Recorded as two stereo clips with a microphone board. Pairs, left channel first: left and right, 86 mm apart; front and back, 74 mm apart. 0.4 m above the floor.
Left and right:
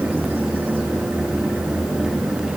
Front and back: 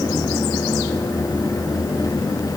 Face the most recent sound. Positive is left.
No sound to turn to.